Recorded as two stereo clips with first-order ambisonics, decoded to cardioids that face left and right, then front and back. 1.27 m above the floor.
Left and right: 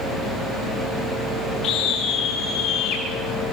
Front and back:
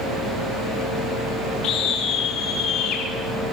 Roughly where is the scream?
Ahead left.